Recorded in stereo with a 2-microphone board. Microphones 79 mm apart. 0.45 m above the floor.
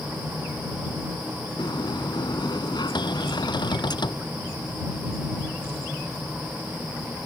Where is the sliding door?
70° left (ahead or behind).